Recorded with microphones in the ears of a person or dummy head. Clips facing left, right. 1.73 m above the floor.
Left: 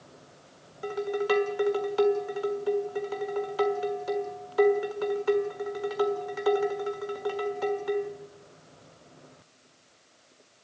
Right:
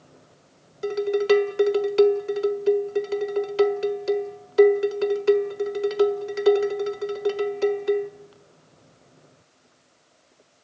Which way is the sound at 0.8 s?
30° right (ahead or behind).